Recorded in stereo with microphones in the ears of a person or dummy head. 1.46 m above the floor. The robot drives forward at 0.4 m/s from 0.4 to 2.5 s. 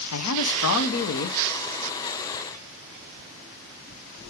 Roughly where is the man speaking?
Left.